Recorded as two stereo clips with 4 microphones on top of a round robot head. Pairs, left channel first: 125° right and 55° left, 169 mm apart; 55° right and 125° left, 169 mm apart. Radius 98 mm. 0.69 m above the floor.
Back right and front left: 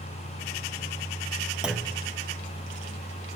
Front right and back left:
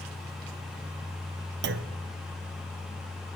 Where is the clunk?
140° left, 0.6 m.